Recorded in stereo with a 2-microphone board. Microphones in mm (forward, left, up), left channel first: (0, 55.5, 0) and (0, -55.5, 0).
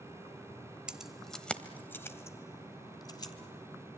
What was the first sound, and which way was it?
Keys jangling, 10° right (ahead or behind).